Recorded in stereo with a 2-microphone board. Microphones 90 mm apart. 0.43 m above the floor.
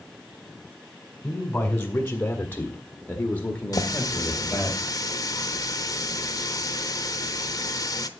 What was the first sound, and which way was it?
A man speaking, 15° left (ahead or behind).